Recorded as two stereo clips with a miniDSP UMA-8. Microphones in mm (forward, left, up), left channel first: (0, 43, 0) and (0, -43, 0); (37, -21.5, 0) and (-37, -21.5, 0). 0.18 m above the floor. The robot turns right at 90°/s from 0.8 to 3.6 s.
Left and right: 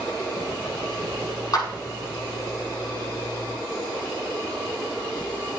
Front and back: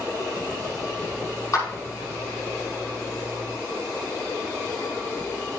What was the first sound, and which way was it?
A clap, 45° left.